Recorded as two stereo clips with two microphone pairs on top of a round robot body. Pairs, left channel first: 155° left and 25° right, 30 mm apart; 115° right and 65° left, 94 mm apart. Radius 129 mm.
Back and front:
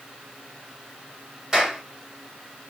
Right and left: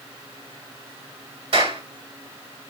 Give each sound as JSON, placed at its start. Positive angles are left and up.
{"t": 1.5, "sound": "a clap", "azimuth_deg": 45, "distance_m": 5.5}